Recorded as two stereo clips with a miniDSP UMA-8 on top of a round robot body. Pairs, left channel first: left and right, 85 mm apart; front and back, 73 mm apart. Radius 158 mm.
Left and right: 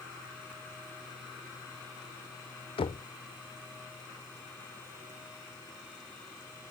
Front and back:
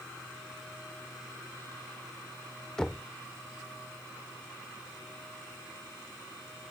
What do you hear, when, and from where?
2.8 s knocking: 80° left